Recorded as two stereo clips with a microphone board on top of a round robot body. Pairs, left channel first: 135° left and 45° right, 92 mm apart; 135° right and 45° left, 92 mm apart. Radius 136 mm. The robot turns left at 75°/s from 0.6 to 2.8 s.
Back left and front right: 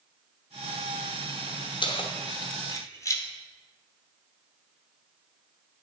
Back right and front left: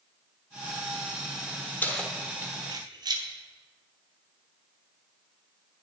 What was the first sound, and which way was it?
Keys jangling, 155° left.